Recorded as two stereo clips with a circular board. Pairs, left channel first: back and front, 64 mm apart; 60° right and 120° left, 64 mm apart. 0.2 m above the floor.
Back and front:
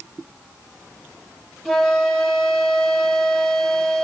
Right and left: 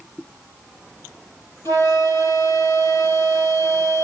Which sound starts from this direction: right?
A flute, at 1.6 s.